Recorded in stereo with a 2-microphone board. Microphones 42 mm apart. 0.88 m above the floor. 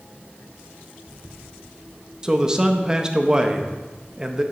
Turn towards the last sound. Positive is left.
turn(degrees=-15)  # may be behind; listen again after turning